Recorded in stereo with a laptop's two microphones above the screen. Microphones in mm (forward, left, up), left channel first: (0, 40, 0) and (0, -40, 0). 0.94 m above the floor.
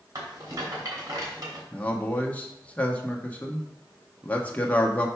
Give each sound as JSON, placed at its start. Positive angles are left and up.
{"t": 0.1, "sound": "a rattle", "side_deg": -50, "distance_m": 3.0}
{"t": 1.7, "sound": "a man speaking", "side_deg": 20, "distance_m": 1.3}